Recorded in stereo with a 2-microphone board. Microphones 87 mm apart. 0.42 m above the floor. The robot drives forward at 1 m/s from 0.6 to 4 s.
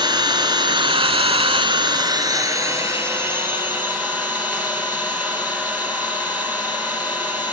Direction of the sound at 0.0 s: 60° right (ahead or behind).